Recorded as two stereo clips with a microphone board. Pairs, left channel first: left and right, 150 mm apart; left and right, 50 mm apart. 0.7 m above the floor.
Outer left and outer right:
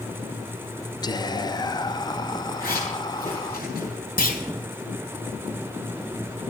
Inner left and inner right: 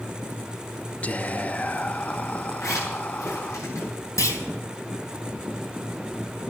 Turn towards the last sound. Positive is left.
turn(degrees=80)